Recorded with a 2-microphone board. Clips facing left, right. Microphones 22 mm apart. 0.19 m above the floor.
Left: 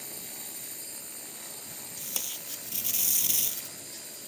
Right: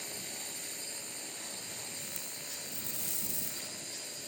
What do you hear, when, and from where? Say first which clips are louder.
0.0 s a drone: right 1 dB; 15° right (ahead or behind)
2.0 s tape being pulled: left 5 dB; 80° left